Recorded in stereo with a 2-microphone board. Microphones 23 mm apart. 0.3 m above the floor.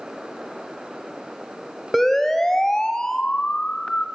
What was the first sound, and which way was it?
A siren, 5° left (ahead or behind).